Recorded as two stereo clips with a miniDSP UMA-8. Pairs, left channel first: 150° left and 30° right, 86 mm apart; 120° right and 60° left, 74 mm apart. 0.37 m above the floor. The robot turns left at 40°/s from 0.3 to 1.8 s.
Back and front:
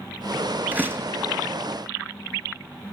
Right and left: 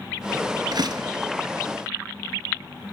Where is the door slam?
40° left, 4 m; by 1.2 s 25° left, 4 m.